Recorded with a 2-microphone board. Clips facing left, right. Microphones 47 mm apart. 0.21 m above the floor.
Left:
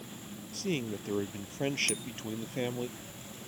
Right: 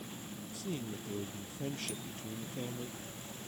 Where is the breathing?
No breathing in this recording.